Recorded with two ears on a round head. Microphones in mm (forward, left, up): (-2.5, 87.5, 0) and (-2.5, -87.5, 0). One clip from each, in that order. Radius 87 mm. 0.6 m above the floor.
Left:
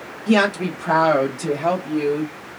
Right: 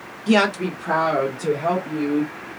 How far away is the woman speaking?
About 0.9 m.